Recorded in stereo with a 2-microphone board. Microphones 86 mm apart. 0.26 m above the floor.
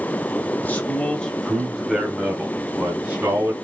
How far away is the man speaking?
About 1.5 m.